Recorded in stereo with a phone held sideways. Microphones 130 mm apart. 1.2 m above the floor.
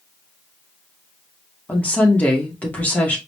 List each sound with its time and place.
1.7 s a woman speaking: 10° left (ahead or behind), 2 m